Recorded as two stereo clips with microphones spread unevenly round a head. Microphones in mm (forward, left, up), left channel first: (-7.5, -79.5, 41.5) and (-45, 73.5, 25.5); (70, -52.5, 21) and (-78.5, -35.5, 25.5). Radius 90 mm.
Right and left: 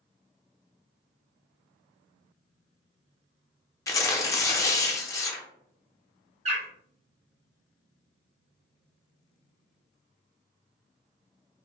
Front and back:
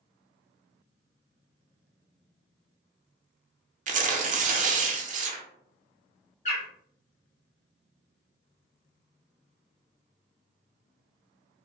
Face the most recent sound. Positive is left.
turn(degrees=45)